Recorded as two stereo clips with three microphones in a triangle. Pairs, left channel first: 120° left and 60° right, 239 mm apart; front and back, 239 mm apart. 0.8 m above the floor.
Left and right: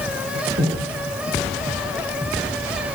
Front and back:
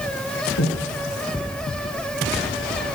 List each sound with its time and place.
0.6 s breathing: 10° right, 7 m